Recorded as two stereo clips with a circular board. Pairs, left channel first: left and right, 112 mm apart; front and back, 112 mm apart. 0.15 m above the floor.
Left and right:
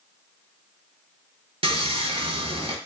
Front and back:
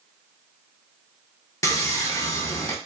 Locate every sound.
1.6 s sawing: 60° right, 0.7 m